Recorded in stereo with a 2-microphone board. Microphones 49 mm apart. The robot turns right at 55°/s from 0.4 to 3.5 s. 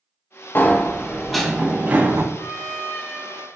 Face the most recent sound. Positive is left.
turn(degrees=65)